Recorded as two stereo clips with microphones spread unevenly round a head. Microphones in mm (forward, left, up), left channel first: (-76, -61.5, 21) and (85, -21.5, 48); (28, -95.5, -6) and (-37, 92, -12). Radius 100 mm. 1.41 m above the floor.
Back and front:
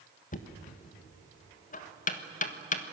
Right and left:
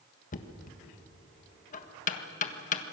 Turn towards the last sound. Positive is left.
turn(degrees=-125)